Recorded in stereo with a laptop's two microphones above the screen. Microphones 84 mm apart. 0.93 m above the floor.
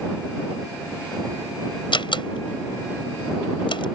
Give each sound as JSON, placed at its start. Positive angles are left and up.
{"t": 1.9, "sound": "a door slam", "side_deg": 80}